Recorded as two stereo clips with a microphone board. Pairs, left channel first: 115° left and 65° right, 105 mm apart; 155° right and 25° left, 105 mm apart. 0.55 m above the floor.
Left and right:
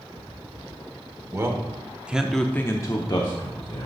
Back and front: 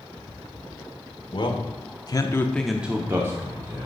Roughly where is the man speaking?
Behind right.